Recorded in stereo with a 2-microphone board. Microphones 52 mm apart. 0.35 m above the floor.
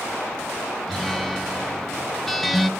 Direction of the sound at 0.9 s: 5° left (ahead or behind).